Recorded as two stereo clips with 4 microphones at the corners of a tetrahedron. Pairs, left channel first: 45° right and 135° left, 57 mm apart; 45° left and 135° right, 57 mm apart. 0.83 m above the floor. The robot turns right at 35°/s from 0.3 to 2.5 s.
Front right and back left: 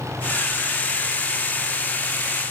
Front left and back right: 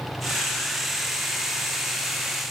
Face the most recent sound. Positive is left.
No sound to turn to.